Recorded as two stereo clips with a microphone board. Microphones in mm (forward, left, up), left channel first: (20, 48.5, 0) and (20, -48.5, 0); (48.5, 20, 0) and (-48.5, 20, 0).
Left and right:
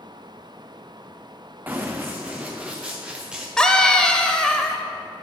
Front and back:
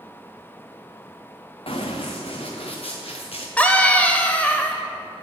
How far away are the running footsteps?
About 1.6 m.